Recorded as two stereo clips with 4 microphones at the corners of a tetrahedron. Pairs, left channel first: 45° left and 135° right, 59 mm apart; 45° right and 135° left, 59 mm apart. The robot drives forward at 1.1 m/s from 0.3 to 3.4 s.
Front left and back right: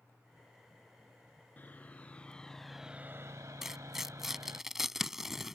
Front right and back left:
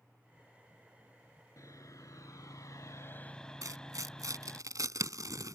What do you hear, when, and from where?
1.6 s sawing: 15° right; by 4.6 s 120° right
3.6 s tearing paper: 140° left